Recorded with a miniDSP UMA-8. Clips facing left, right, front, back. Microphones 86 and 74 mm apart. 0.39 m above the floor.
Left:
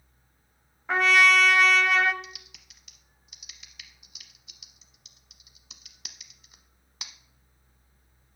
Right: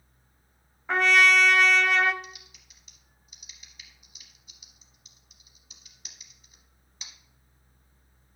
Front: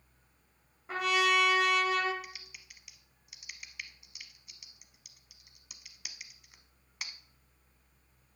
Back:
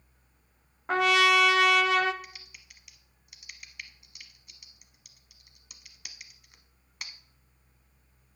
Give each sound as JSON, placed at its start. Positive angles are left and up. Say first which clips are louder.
{"t": 0.9, "sound": "a trumpet", "louder": "even, back 6 dB", "azimuth_deg": 180, "distance_m": 0.5}
{"t": 2.2, "sound": "typing on a keyboard", "louder": "right 1 dB, even", "azimuth_deg": 90, "distance_m": 0.7}